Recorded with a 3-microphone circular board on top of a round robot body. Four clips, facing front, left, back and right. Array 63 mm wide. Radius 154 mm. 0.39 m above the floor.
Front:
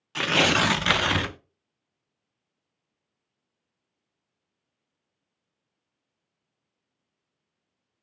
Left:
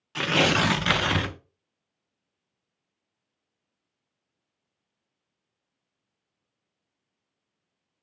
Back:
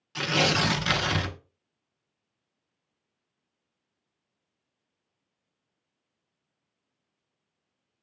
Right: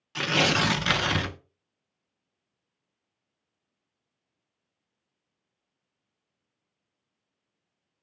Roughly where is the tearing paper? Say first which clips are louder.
Left 2 dB, front 3 dB; ahead.